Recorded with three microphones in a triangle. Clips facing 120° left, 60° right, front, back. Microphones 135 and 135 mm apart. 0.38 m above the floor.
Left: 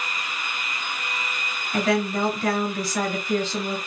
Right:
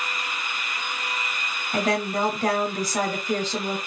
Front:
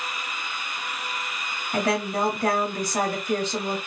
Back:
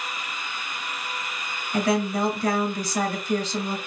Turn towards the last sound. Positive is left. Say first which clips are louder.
# left 1 dB, back 1 dB
turn(degrees=-20)